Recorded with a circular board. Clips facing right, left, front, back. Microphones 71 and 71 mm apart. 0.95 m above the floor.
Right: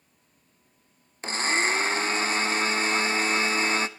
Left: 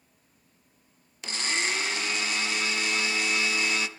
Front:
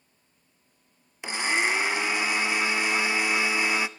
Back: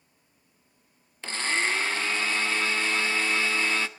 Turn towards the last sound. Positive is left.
turn(degrees=-70)